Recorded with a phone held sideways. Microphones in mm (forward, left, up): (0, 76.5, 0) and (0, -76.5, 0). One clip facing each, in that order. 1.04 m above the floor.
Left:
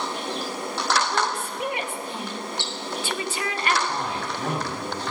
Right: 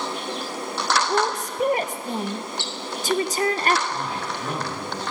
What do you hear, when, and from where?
1.1 s a woman speaking: 40° right (ahead or behind), 0.9 m
3.9 s a man speaking: 85° left, 7.5 m